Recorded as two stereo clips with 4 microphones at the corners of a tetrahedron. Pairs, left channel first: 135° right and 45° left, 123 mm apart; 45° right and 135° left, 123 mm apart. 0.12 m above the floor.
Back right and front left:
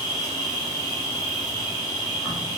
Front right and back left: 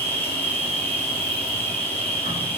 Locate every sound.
0.0 s an insect: 110° right, 1.5 m